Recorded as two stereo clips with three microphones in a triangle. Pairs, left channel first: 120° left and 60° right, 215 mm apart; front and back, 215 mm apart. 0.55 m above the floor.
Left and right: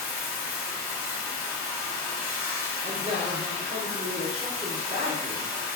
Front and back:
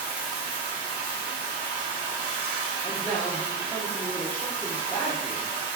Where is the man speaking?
75° right, 0.7 m.